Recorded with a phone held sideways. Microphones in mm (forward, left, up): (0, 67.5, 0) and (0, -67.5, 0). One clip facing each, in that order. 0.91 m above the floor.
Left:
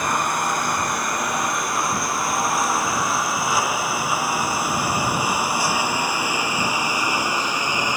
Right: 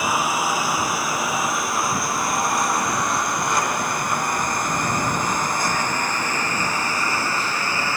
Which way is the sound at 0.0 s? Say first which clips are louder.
Right 1 dB; 5° right (ahead or behind).